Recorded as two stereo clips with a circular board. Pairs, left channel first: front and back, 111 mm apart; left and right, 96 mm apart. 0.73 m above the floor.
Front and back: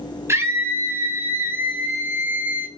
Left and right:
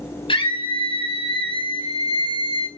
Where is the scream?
115° left, 4.5 m; by 2.7 s 105° left, 3.5 m.